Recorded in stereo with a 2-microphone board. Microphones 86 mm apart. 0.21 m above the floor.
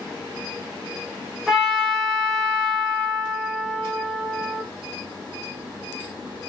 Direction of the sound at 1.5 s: Centre (ahead or behind).